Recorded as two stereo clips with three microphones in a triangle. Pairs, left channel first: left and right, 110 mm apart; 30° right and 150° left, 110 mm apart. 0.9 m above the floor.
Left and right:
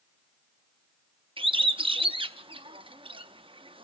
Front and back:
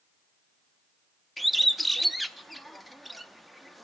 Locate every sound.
1.4 s a bird: 120° right, 0.5 m